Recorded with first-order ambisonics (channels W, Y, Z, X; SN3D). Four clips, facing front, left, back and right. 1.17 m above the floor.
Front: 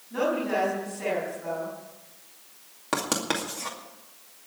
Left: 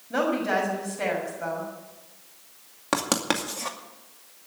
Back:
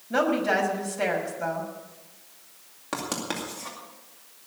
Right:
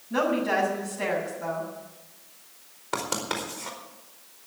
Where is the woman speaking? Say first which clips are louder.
Even, back 3 dB; 155° left, 6 m.